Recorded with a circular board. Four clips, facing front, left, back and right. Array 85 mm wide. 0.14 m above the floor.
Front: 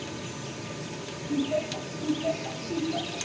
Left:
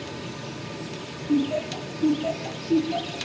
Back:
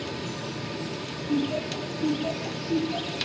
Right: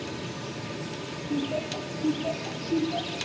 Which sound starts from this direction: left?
Laughter, at 1.3 s.